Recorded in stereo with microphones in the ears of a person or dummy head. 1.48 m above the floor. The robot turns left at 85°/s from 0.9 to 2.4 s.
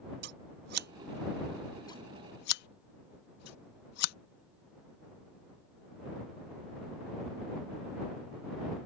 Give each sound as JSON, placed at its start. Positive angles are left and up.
{"t": 0.2, "sound": "scissors", "side_deg": -60}